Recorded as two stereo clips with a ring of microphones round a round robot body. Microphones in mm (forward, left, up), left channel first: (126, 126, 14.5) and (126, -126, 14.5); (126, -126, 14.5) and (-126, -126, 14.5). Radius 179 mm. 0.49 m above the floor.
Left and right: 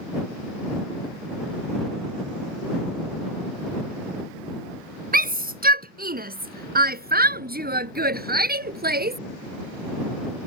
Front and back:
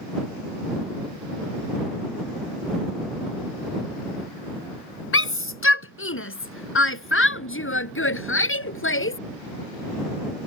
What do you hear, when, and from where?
5.1 s a shout: 35° right